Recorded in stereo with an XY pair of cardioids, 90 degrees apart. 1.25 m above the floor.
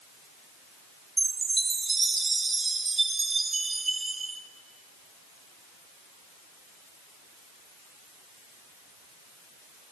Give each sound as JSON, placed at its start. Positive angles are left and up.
{"t": 1.2, "sound": "a chime", "azimuth_deg": -30, "distance_m": 1.6}